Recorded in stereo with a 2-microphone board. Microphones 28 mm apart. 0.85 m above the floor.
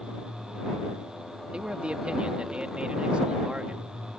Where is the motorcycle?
5° right (ahead or behind); by 4.2 s 20° right (ahead or behind).